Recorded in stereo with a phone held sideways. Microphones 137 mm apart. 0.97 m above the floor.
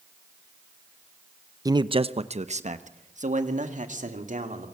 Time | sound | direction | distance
1.6 | a man speaking | 25° right (ahead or behind) | 0.6 m